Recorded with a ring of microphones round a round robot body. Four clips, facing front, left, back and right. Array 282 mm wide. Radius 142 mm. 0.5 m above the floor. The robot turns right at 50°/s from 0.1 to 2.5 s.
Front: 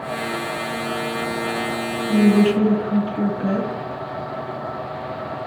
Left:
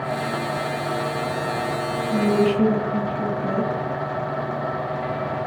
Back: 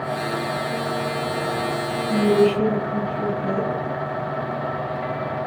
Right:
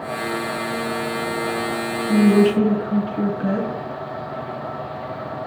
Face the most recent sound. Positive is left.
turn(degrees=-55)